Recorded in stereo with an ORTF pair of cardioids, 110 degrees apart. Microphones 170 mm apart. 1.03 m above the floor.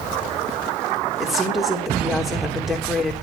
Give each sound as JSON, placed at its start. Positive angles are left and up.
{"t": 1.2, "sound": "a woman speaking", "azimuth_deg": 0, "distance_m": 3.5}